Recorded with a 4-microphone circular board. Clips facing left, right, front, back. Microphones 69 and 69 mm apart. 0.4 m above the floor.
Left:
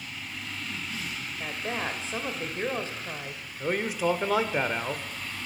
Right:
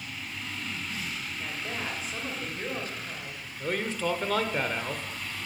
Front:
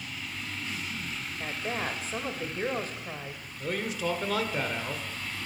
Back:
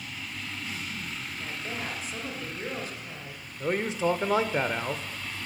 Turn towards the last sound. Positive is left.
turn(degrees=155)